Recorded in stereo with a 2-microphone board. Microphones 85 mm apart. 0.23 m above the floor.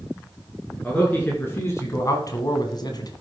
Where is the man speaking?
15° left (ahead or behind), 3 m; by 3.1 s 50° left (ahead or behind), 1.7 m.